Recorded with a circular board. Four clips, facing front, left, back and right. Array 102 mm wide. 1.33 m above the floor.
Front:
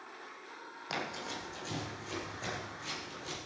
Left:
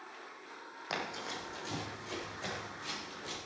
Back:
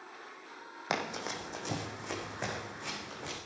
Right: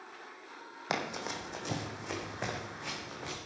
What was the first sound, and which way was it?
Running footsteps, 140° right.